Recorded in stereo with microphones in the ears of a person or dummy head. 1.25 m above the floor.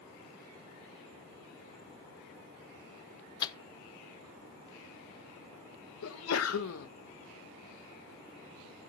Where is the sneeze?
75° left (ahead or behind), 0.9 m.